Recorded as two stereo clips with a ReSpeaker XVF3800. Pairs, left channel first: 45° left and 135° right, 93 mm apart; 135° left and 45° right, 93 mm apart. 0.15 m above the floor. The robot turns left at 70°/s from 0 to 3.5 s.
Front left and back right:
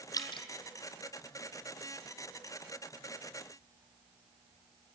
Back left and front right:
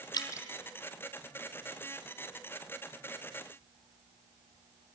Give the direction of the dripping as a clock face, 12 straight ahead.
9 o'clock.